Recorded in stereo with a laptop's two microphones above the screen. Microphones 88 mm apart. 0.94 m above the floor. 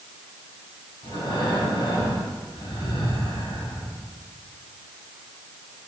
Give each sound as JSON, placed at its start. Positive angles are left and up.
{"t": 1.0, "sound": "breathing", "side_deg": 75, "distance_m": 5.5}